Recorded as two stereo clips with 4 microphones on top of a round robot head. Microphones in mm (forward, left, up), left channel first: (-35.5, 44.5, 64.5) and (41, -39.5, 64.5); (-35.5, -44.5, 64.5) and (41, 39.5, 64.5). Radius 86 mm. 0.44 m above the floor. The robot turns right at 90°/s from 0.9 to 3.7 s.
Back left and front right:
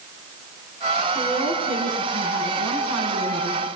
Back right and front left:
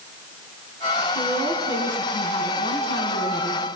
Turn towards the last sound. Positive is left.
turn(degrees=-70)